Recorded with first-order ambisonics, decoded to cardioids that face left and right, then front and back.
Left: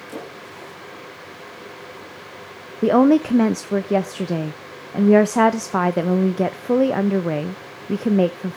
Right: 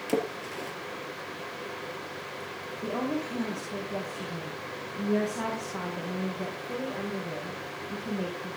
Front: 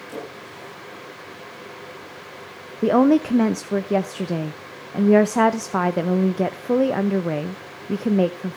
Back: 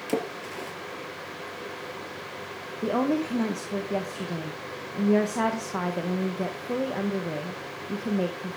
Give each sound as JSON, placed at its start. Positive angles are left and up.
{"t": 0.1, "sound": "a splash", "azimuth_deg": -140, "distance_m": 3.5}
{"t": 2.8, "sound": "a woman speaking", "azimuth_deg": 60, "distance_m": 0.7}